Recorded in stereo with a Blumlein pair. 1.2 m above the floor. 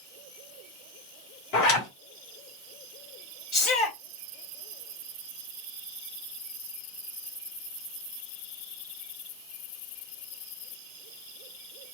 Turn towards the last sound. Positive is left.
turn(degrees=25)